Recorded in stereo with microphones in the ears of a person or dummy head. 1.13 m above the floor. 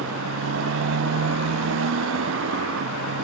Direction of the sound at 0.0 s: 75° right (ahead or behind).